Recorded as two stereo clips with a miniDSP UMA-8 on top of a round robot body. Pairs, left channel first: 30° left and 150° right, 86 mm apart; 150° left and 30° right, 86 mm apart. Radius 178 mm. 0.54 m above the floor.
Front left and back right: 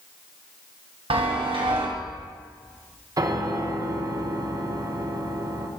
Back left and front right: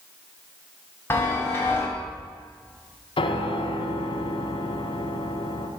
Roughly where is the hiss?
I don't hear a hiss.